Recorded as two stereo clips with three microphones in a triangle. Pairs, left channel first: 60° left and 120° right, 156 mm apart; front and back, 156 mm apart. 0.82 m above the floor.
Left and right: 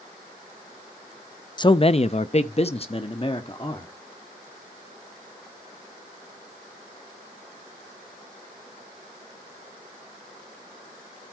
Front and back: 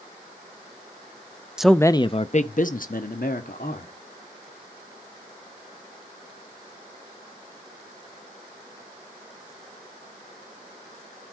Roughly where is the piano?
No piano in this recording.